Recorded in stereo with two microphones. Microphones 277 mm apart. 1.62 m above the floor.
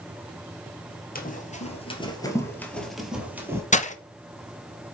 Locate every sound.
1.1 s running footsteps: 30° left (ahead or behind), 2 m; by 3.6 s 10° right (ahead or behind), 2.5 m
3.7 s breaking glass: 25° left (ahead or behind), 0.8 m